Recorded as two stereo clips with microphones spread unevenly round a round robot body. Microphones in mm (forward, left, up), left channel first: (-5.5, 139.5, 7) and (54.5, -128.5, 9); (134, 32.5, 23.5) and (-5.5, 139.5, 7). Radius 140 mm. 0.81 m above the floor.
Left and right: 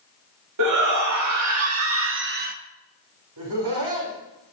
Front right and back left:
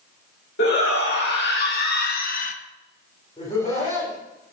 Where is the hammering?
No hammering in this recording.